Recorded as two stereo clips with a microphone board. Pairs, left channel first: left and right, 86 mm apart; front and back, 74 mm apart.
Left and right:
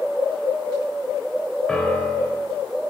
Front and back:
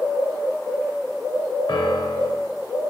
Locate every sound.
1.7 s a piano: 10° left, 0.7 m